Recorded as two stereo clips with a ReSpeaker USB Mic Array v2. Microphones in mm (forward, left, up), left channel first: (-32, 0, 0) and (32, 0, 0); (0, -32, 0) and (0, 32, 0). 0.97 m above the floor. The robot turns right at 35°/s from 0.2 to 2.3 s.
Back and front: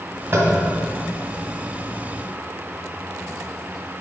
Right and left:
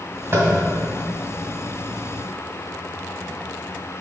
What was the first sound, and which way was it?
Tapping, 50° left.